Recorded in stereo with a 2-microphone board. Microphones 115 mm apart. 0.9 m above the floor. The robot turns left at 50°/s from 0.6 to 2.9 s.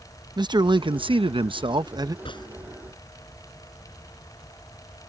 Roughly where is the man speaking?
Ahead right.